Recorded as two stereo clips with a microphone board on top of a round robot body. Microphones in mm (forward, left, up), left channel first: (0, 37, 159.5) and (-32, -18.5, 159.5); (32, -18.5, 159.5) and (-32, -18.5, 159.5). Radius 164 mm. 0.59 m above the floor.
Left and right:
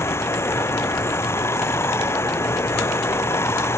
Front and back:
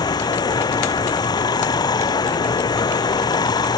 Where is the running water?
10° left.